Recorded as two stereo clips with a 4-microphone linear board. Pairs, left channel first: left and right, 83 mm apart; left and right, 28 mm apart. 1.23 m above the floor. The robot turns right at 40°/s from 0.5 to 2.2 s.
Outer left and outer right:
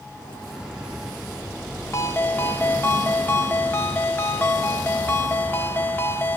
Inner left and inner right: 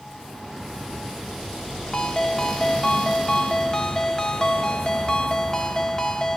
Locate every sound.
1.9 s a ringtone: 35° left (ahead or behind), 1.5 m; by 6.4 s 25° left (ahead or behind), 1.5 m